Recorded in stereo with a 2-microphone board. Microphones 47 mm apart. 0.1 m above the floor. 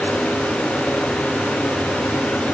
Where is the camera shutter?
I don't hear a camera shutter.